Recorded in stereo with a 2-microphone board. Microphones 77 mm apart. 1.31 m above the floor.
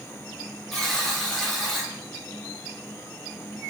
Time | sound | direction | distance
0.7 | a buzzer | 5° left (ahead or behind) | 3.5 m